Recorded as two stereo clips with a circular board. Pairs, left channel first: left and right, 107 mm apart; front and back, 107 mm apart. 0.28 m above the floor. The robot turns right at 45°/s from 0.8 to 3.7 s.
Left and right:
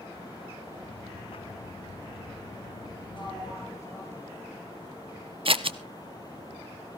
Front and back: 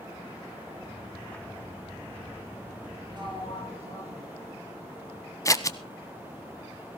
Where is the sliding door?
130° left, 3.5 m; by 4.7 s 155° left, 3.5 m.